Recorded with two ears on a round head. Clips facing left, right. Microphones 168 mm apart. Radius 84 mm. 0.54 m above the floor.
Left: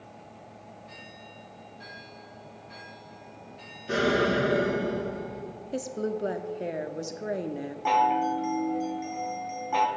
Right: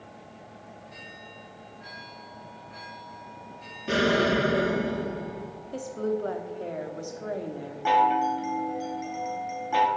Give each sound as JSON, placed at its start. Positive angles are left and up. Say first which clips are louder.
{"t": 3.9, "sound": "an explosion", "louder": "right 1 dB", "side_deg": -75, "distance_m": 4.0}
{"t": 5.7, "sound": "a woman speaking", "louder": "right 2 dB", "side_deg": 20, "distance_m": 0.6}
{"t": 7.8, "sound": "a chime", "louder": "right 2 dB", "side_deg": -5, "distance_m": 0.9}